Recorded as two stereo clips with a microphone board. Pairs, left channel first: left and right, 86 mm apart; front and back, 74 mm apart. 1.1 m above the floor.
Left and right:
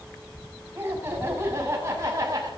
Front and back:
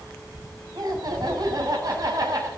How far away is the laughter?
About 8 m.